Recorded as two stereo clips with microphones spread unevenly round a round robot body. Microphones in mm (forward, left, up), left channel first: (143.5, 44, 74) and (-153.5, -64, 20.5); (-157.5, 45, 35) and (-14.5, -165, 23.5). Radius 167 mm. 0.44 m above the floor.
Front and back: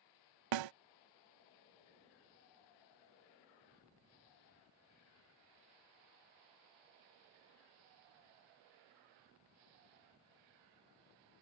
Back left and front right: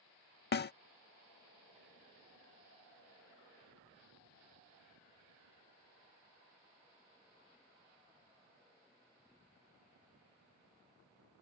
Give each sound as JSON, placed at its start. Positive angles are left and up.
{"t": 0.5, "sound": "a snare drum", "azimuth_deg": 175}